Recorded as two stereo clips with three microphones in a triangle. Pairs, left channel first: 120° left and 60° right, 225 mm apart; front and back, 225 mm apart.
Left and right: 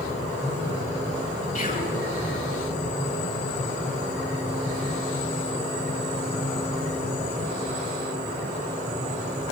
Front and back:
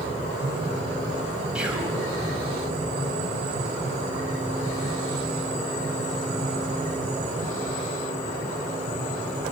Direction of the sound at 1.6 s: 100° left.